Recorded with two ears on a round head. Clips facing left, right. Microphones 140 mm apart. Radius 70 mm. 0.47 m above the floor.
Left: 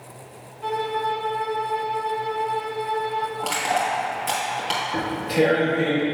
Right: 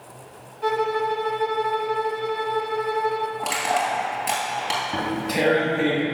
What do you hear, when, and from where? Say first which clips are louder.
0.6 s a violin: right 2 dB; 50° right (ahead or behind), 0.5 m
3.4 s crushing: left 1 dB; 15° right (ahead or behind), 2.5 m
4.9 s tearing paper: left 4 dB; 65° right (ahead or behind), 2.5 m